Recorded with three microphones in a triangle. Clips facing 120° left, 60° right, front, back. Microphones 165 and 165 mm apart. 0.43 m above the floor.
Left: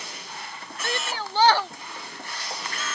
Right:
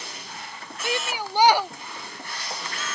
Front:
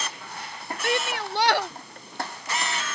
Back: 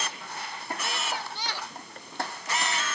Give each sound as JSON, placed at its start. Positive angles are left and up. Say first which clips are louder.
{"t": 0.8, "sound": "a shout", "louder": "right 2 dB, front 10 dB", "azimuth_deg": 15}